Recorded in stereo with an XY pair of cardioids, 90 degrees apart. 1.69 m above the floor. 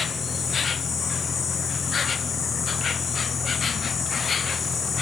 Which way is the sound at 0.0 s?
50° left.